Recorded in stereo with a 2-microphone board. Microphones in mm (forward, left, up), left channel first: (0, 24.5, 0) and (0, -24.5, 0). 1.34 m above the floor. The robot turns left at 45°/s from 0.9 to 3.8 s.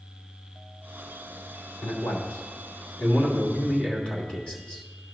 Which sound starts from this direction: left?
A man speaking, at 1.8 s.